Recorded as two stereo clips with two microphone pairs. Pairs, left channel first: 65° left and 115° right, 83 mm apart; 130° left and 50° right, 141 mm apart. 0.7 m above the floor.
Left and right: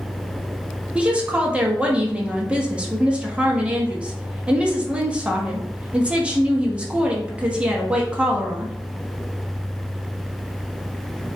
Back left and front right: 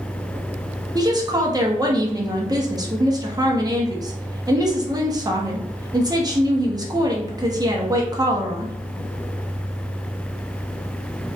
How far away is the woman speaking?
About 0.9 m.